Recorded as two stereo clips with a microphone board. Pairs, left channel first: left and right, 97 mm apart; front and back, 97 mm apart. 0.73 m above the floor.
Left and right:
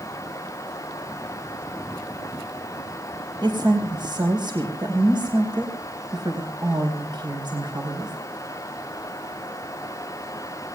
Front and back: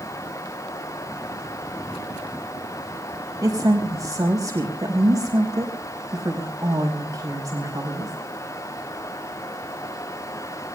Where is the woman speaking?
130° right, 4 m.